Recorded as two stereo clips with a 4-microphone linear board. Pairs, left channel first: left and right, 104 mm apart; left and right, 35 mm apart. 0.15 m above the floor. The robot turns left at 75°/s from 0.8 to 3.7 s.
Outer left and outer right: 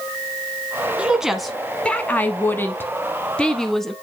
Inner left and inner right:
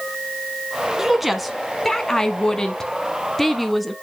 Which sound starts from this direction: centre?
A woman speaking, at 1.0 s.